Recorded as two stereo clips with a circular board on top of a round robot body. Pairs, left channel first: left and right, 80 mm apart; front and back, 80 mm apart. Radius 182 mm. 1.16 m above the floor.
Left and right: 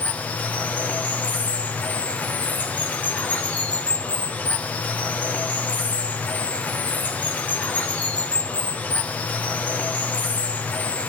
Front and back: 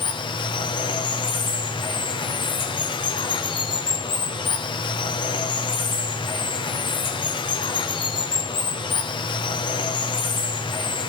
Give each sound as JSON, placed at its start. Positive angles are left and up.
{"t": 0.0, "sound": "running water", "azimuth_deg": 20, "distance_m": 0.8}